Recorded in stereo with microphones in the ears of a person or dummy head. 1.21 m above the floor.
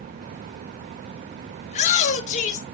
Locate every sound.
1.7 s a shout: 45° left (ahead or behind), 1.9 m